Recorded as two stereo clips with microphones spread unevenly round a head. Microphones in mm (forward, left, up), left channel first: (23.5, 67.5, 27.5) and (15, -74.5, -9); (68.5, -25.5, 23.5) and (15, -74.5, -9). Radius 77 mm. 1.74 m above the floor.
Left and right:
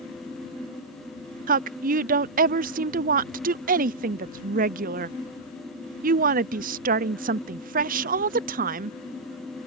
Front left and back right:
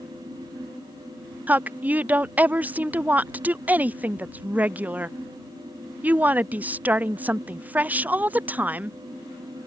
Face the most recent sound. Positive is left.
turn(degrees=-55)